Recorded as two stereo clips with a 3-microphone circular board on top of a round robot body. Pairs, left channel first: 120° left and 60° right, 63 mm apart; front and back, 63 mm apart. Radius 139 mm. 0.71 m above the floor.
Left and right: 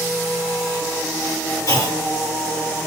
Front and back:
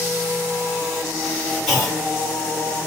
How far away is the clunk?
About 2.5 m.